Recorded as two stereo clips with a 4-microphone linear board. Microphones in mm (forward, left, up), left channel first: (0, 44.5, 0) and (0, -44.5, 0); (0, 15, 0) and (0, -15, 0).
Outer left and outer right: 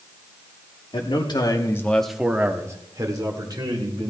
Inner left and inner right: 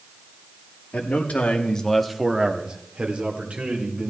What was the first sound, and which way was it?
A man speaking, 65° left (ahead or behind).